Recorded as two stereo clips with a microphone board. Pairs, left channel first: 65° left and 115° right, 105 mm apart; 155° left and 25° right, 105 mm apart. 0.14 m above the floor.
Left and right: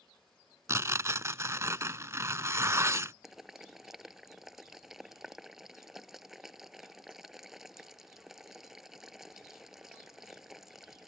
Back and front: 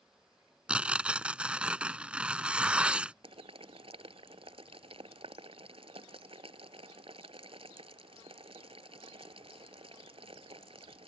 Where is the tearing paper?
90° right.